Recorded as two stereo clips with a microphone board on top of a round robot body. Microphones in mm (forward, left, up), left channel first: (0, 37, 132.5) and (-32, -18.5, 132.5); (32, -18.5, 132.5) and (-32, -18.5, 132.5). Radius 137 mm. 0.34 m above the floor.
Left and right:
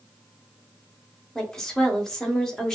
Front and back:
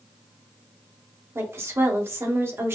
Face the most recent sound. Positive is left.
turn(degrees=140)